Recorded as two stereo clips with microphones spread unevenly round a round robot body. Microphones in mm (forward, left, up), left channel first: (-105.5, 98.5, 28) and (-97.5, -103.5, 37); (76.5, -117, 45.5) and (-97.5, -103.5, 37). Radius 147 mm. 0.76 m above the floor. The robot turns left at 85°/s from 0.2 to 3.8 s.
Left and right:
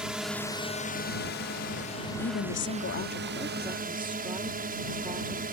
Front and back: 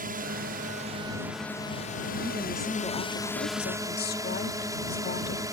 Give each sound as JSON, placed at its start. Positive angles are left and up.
{"t": 0.0, "sound": "a drone", "azimuth_deg": -175}
{"t": 2.2, "sound": "a woman speaking", "azimuth_deg": 120}